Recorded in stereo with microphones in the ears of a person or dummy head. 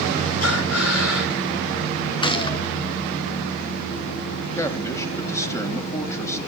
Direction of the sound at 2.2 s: 25° left (ahead or behind).